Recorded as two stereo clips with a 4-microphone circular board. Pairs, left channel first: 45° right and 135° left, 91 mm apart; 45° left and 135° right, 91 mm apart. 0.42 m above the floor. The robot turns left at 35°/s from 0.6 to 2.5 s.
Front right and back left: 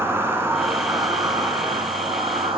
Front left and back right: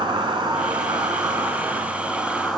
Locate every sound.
0.0 s an insect: 165° right, 1.7 m; by 2.6 s 130° left, 1.7 m